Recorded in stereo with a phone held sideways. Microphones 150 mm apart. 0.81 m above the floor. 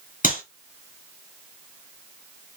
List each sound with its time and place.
0.2 s a clap: 60° left (ahead or behind), 1.9 m